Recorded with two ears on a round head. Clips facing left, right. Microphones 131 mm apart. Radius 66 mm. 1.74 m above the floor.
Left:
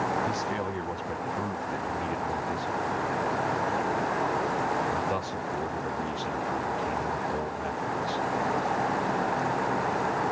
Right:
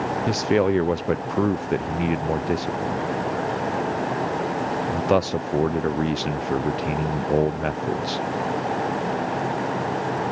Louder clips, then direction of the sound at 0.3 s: Right 10 dB; 75° right (ahead or behind).